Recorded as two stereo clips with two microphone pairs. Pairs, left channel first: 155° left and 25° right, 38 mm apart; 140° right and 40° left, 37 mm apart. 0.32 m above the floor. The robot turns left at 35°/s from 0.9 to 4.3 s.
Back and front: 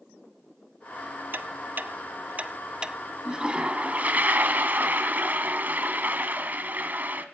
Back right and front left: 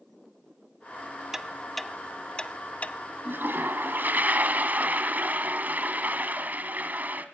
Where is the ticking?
40° right, 0.6 m; by 3.0 s 95° right, 0.6 m.